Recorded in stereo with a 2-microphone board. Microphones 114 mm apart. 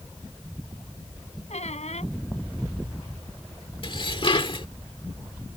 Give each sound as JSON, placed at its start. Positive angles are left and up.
{"t": 1.5, "sound": "a squeak", "side_deg": 80}
{"t": 3.8, "sound": "dishes clattering", "side_deg": 50}